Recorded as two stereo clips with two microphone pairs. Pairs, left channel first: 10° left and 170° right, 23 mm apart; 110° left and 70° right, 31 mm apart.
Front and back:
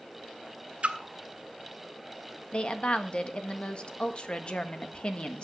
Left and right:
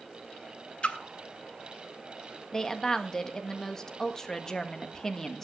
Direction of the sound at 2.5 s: 45° left.